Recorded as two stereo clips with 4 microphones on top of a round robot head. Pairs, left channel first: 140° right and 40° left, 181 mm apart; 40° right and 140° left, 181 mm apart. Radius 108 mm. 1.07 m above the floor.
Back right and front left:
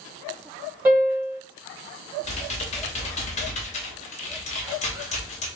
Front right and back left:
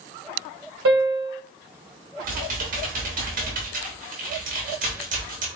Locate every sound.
0.8 s a piano: 120° left, 1.5 m
2.2 s typing on a keyboard: 175° left, 0.6 m